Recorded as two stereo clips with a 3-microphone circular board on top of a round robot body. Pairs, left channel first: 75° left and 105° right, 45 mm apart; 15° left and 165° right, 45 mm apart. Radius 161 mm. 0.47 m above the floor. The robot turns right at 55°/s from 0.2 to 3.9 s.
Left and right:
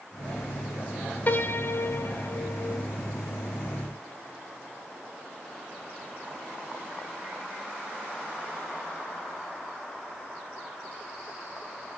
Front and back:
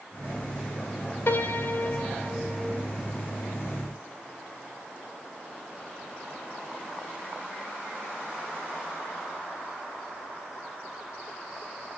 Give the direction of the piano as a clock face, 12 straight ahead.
11 o'clock.